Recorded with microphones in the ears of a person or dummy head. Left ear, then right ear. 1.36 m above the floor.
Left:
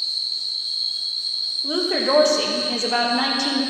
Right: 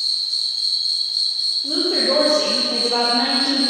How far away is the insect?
About 4.5 m.